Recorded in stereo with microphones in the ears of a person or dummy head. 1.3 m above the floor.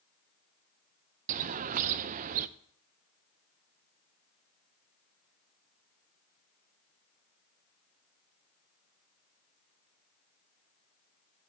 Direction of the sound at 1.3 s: 45° right (ahead or behind).